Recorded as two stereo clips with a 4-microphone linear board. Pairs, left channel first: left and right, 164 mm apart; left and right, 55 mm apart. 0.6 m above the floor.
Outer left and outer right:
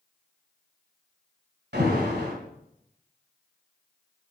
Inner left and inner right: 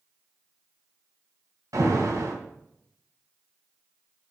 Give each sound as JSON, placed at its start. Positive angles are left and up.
{"t": 1.7, "sound": "an alarm", "side_deg": -85, "distance_m": 3.0}